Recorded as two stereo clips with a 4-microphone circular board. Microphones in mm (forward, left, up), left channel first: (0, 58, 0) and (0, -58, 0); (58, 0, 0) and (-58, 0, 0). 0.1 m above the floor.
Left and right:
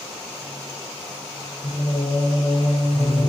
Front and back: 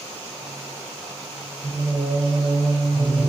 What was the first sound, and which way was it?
Singing, 130° left.